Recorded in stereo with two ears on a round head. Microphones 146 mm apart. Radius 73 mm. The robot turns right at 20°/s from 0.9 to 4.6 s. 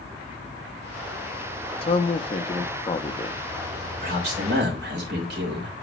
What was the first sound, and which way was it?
A man speaking, 110° left.